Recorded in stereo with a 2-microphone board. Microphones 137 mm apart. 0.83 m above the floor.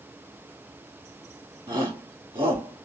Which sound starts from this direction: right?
A shout, at 1.7 s.